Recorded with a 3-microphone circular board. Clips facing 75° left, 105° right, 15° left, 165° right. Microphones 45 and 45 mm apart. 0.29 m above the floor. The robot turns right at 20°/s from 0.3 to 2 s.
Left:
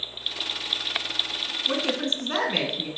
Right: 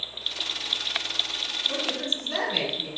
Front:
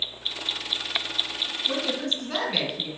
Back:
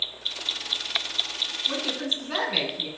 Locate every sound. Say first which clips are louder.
1.7 s a woman speaking: left 5 dB, front 2 dB; 105° left, 3 m; by 2.9 s 115° left, 3 m